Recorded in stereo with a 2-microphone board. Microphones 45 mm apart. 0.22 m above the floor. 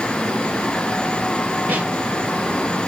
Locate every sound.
1.7 s a snare drum: 35° right (ahead or behind), 4 m